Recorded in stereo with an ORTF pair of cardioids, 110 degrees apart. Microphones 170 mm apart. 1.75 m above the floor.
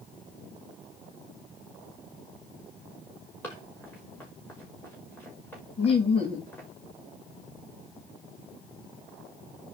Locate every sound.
3.4 s running footsteps: 10° left, 6 m
5.8 s laughter: 35° left, 3.5 m